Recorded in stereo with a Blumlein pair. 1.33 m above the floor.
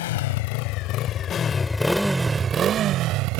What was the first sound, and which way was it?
A motorcycle, 55° left.